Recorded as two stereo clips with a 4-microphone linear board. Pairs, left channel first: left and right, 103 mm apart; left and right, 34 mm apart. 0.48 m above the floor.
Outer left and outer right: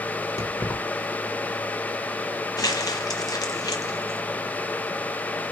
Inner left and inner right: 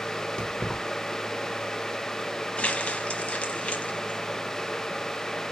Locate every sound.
0.4 s keys jangling: 25° left (ahead or behind), 1.3 m
2.6 s crumpling: 35° left (ahead or behind), 0.9 m